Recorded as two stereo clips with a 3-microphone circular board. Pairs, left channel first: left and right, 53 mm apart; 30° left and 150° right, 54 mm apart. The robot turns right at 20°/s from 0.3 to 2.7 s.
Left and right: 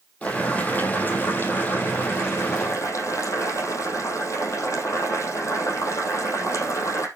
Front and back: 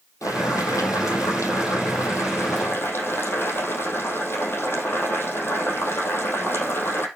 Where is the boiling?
25° left, 3.5 m; by 7.1 s 75° left, 3.5 m.